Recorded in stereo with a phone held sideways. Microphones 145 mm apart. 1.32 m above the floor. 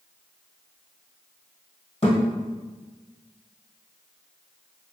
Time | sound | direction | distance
2.0 | a thud | 45° left (ahead or behind) | 1.8 m